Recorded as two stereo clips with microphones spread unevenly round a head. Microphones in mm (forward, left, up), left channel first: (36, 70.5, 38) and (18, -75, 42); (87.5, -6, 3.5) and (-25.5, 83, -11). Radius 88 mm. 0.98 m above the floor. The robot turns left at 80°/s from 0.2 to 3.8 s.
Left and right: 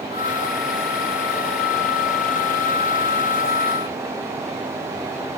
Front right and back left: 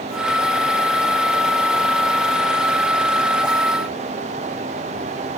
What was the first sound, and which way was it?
Only background noise.